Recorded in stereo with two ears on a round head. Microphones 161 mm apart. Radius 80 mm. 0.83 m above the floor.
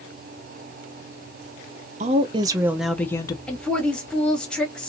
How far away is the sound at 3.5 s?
About 1.2 m.